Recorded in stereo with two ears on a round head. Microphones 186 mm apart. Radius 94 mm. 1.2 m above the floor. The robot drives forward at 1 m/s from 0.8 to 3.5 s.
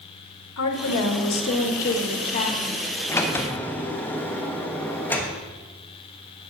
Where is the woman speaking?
85° left, 1.6 m; by 2.9 s 40° left (ahead or behind), 2.5 m.